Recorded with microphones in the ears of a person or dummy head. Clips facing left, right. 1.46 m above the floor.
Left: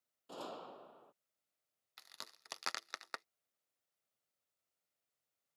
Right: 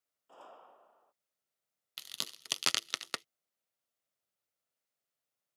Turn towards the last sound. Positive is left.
turn(degrees=-45)  # may be behind; listen again after turning